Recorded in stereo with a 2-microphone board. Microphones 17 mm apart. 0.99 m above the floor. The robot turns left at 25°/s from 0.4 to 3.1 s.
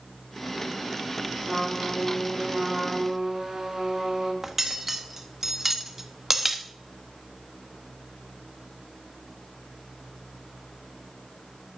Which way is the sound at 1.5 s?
5° left.